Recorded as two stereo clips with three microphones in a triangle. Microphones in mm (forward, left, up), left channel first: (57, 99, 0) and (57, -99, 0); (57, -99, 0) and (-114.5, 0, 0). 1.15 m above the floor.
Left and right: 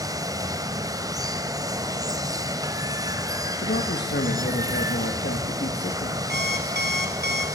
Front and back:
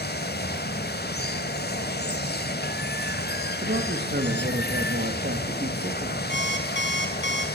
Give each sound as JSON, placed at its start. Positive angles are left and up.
{"t": 0.0, "sound": "running water", "azimuth_deg": -20, "distance_m": 1.4}
{"t": 3.6, "sound": "a man speaking", "azimuth_deg": 120, "distance_m": 1.9}
{"t": 6.3, "sound": "an alarm clock", "azimuth_deg": -55, "distance_m": 2.5}